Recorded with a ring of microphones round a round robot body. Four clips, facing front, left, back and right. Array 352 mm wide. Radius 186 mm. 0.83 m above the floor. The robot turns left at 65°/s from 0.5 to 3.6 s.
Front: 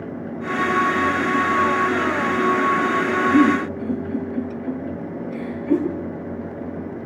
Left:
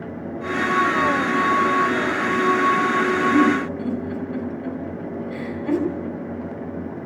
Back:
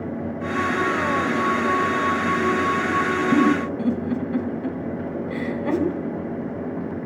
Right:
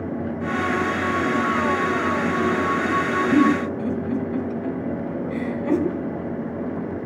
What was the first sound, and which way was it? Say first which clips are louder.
A giggle: right 3 dB, front 2 dB; 165° right.